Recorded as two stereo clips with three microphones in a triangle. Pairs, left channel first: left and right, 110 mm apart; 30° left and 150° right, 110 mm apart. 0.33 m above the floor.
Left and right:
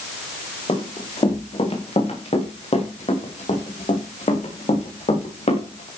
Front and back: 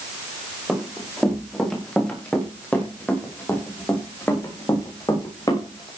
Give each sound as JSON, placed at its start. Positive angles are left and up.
{"t": 0.7, "sound": "running footsteps", "azimuth_deg": 120, "distance_m": 7.5}